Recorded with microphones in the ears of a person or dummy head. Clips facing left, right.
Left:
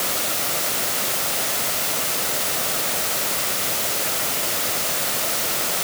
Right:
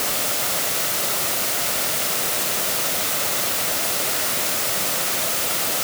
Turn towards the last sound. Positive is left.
No sound to turn to.